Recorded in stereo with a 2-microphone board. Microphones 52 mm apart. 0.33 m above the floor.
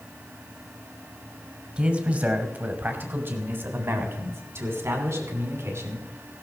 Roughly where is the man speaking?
Right.